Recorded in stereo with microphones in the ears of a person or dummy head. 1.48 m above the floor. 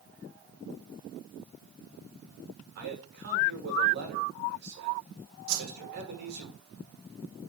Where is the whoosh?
80° right, 1.6 m.